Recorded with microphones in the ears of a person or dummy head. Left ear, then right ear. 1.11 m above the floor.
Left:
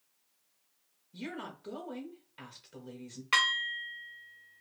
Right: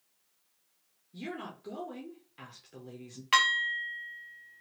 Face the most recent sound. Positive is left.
turn(degrees=-15)  # may be behind; listen again after turning